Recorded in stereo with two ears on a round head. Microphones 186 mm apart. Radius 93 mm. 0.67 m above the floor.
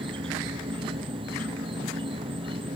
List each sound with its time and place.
0.0 s an insect: 25° right (ahead or behind)